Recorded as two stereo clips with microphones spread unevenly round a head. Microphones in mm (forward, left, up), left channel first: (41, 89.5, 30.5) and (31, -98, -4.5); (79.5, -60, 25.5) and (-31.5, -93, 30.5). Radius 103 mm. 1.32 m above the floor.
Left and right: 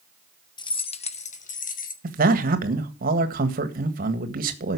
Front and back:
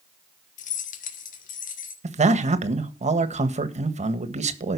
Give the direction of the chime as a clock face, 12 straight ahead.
No chime in this recording.